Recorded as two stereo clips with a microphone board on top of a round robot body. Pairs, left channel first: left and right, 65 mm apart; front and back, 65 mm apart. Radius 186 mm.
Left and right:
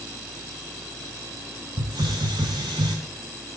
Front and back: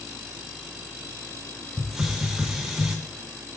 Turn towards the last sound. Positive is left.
turn(degrees=-95)